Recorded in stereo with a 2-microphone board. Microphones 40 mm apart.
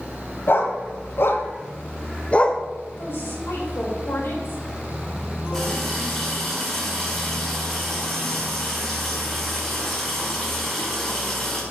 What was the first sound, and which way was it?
A dog barking, 70° left (ahead or behind).